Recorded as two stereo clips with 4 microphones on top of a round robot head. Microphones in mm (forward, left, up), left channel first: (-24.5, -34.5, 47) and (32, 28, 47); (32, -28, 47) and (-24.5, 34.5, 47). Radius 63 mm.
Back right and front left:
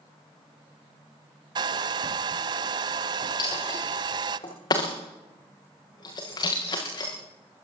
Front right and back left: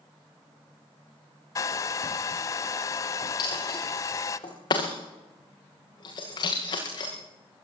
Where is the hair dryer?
5° left, 0.8 m.